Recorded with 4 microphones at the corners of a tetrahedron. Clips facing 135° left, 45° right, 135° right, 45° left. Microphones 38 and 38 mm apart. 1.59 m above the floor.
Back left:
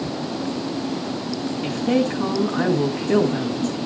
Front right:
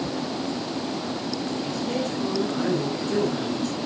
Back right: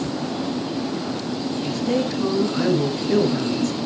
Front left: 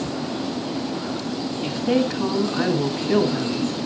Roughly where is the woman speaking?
Left.